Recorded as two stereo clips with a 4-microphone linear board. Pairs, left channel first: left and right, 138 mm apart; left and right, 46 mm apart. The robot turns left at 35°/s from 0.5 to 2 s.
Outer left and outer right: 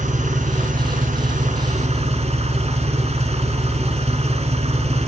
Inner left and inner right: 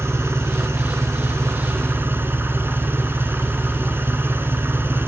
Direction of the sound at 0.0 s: 75° right.